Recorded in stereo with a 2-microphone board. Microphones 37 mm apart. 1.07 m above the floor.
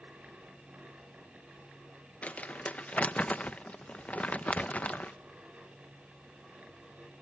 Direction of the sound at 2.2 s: 40° left (ahead or behind).